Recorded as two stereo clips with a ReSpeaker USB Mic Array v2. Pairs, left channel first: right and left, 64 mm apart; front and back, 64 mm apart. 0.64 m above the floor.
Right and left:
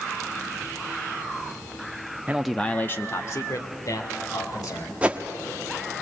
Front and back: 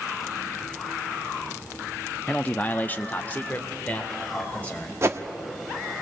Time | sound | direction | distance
2.3 | a man speaking | 55° left | 0.5 m
5.0 | a whoosh | 150° left | 1.0 m